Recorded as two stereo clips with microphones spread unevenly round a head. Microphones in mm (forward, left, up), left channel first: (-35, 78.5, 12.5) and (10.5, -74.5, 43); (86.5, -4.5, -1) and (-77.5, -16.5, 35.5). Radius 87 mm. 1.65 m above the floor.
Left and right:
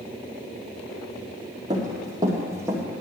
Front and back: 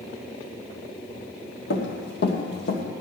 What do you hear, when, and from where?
1.7 s running footsteps: 15° right, 3 m; by 2.8 s 10° right, 2 m